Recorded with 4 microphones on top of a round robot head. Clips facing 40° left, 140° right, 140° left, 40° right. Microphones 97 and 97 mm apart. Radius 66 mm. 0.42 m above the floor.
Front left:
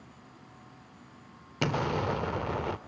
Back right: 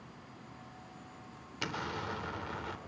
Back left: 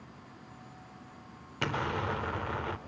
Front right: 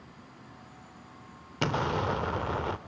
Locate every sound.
1.6 s an explosion: 20° left, 0.5 m